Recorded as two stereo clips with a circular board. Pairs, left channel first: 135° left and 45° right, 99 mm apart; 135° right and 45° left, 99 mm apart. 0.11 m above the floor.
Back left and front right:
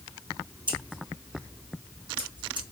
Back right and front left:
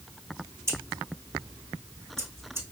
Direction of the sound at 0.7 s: 15° right.